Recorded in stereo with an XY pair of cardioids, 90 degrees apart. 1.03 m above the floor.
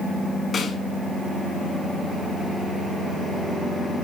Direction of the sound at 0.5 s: 50° left.